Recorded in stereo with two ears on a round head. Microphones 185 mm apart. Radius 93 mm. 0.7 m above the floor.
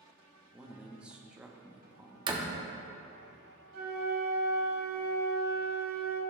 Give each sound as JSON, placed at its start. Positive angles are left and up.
{"t": 0.5, "sound": "a man speaking", "side_deg": -5, "distance_m": 0.7}
{"t": 2.3, "sound": "a door slam", "side_deg": -20, "distance_m": 0.8}
{"t": 3.7, "sound": "a flute", "side_deg": -45, "distance_m": 2.0}